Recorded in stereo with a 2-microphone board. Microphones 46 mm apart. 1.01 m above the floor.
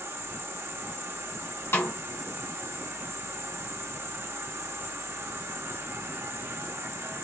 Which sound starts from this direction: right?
An insect, at 0.0 s.